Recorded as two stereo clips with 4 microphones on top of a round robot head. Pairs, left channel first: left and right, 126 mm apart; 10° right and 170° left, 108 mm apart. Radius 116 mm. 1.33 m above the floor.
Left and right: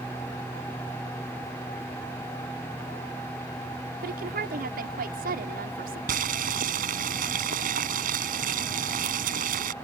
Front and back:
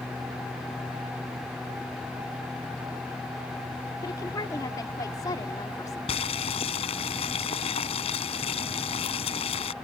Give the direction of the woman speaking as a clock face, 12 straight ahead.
3 o'clock.